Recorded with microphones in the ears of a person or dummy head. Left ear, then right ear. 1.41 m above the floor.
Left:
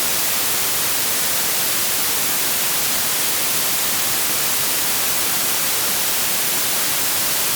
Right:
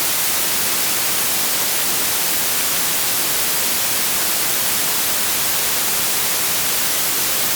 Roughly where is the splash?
I don't hear a splash.